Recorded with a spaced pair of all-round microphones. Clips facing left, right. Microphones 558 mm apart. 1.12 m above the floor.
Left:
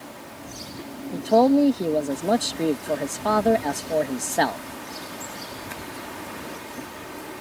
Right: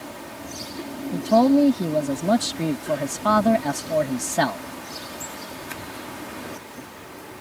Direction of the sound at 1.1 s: 25° right (ahead or behind).